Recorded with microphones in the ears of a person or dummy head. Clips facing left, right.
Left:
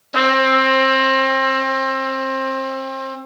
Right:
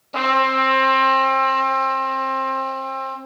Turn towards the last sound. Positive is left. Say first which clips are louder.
# left 5 dB
turn(degrees=20)  # may be behind; listen again after turning